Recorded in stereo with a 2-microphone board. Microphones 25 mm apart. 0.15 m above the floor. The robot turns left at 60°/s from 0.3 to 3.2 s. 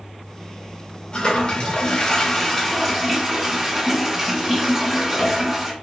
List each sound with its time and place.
1.1 s a toilet flushing: 115° left, 1.7 m; by 5.7 s 10° right, 1.7 m